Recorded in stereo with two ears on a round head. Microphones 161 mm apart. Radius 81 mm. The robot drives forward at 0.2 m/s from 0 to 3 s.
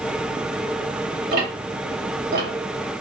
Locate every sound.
1.3 s ticking: 55° right (ahead or behind), 0.9 m; by 3.0 s 70° right (ahead or behind), 0.8 m